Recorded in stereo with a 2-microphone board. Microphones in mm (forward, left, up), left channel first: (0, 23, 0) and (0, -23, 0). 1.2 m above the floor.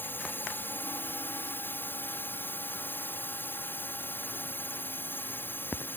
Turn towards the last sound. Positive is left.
turn(degrees=50)  # may be behind; listen again after turning